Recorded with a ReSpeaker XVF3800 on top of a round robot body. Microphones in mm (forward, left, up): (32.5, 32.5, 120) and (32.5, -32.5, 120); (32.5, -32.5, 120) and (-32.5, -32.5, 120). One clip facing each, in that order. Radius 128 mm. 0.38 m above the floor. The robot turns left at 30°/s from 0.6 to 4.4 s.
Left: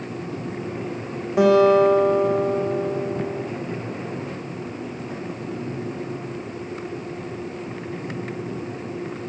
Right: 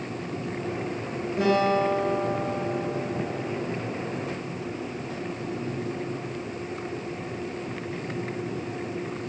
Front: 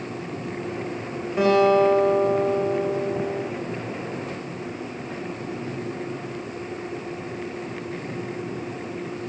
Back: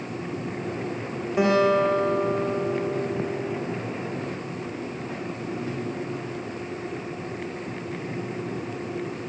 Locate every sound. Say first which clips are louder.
1.4 s a guitar: left 8 dB, front 3 dB; 100° left, 7.5 m; by 3.5 s 35° left, 7.5 m